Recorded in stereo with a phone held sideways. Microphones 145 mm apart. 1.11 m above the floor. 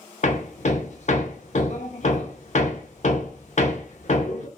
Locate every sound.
0.2 s hammering: 55° left (ahead or behind), 0.5 m